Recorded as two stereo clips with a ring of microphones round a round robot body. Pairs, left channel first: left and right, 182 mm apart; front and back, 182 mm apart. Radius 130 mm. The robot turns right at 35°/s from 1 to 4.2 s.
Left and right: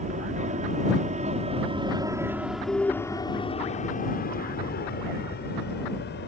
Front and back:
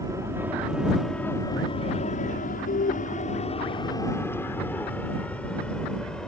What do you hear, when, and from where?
0.0 s an aircraft: 115° right; by 6.3 s 85° left